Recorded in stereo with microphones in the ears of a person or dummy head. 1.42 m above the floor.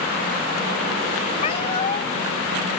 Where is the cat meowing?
40° left (ahead or behind).